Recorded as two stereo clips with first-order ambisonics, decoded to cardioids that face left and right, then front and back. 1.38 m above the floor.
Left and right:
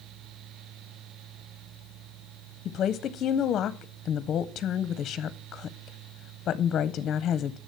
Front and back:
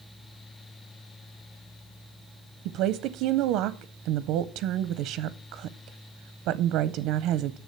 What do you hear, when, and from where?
2.6 s a woman speaking: 150° left, 0.5 m